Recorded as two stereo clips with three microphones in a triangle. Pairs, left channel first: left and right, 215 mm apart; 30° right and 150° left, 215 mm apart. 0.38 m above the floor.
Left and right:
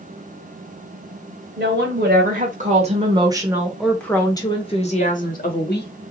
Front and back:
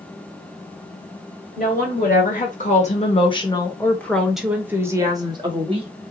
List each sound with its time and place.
1.6 s a woman speaking: 65° right, 1.6 m; by 5.9 s 95° left, 1.4 m